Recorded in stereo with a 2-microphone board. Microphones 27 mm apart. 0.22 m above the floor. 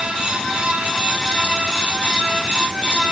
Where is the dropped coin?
No dropped coin in this recording.